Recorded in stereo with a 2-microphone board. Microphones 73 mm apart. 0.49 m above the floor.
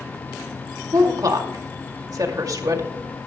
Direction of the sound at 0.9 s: 55° right (ahead or behind).